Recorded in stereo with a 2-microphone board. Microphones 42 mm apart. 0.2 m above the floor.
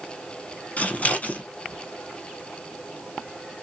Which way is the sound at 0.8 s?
40° left (ahead or behind).